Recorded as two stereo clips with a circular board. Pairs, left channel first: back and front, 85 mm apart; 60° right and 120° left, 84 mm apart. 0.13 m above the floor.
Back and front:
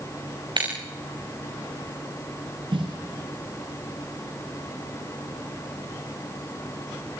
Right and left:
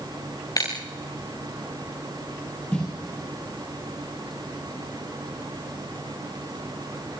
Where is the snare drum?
15° left, 4.5 m.